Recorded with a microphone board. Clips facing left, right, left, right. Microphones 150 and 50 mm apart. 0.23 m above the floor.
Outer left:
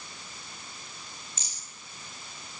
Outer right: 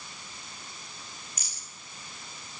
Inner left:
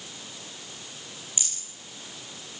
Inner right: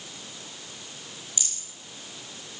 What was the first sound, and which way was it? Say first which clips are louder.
A rattle: outer left 1 dB, even; 25° left (ahead or behind).